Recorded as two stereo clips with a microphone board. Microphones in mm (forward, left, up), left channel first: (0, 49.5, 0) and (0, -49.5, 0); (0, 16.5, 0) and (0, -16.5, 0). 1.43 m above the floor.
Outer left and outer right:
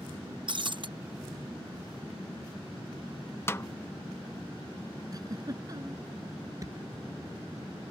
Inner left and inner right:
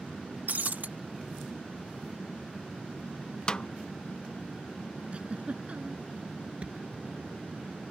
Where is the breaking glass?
55° right (ahead or behind).